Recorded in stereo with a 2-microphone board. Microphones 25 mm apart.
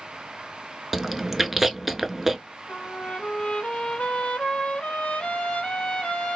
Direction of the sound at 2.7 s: 55° left (ahead or behind).